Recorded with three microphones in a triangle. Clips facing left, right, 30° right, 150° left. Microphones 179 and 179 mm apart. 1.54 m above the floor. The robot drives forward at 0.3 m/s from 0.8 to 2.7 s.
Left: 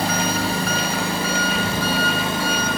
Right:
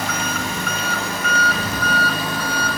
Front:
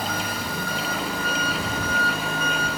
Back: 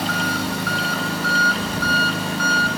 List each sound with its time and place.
0.0 s an engine running: 145° left, 1.5 m; by 2.8 s 155° left, 2.0 m